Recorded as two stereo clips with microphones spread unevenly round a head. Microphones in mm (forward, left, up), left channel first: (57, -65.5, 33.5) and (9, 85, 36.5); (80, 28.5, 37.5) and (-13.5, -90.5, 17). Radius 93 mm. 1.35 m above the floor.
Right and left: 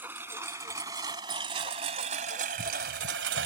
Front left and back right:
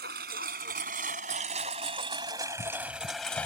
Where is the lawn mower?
170° right; by 3.5 s 130° left.